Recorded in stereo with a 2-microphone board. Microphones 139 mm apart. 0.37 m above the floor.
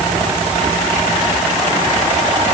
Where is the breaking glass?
I don't hear breaking glass.